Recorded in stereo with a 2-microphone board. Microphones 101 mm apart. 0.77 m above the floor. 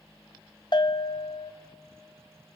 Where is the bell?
50° left (ahead or behind), 0.7 m.